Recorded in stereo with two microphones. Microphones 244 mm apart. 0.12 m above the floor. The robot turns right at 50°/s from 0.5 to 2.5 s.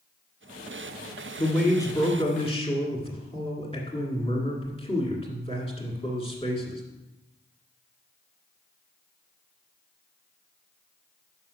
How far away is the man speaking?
About 1.8 m.